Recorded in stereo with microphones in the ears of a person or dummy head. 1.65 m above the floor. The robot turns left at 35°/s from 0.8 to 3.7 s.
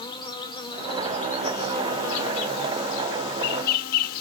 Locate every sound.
0.0 s an insect: 150° left, 0.7 m; by 4.2 s 50° left, 0.7 m